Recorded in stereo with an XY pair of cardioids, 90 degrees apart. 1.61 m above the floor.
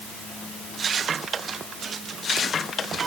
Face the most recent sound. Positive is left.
No sound to turn to.